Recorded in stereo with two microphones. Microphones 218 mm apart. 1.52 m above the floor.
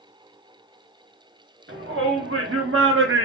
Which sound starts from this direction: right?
A shout, at 1.7 s.